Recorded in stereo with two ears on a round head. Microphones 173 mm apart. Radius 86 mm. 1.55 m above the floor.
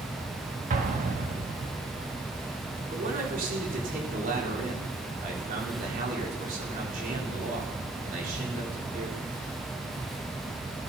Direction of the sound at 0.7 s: 40° right (ahead or behind).